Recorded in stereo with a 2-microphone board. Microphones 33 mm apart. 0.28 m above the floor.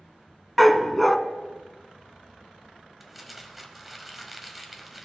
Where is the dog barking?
Centre (ahead or behind), 0.5 m.